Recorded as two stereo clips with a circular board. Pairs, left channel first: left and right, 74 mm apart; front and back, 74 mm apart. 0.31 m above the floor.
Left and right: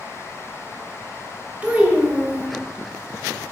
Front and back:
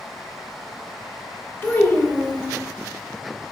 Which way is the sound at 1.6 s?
35° right.